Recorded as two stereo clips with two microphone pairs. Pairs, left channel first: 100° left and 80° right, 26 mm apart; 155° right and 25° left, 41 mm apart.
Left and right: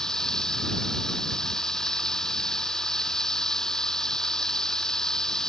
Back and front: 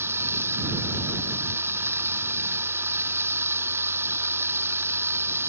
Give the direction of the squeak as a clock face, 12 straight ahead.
No squeak in this recording.